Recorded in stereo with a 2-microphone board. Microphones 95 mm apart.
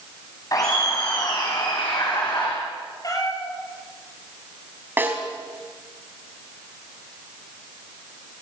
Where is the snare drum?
20° right (ahead or behind), 4 m.